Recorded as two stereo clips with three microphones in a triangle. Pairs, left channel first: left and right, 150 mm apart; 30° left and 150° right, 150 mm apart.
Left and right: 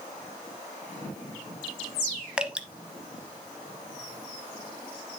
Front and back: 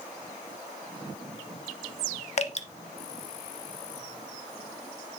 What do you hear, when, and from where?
2.4 s dripping: 10° right, 0.6 m